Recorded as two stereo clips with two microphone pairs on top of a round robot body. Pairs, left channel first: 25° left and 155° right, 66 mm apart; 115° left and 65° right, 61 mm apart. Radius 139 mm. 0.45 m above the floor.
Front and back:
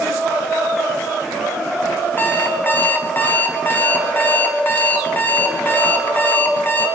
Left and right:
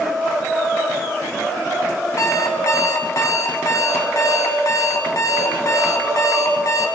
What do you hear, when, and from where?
2.2 s an alarm clock: 85° left, 3 m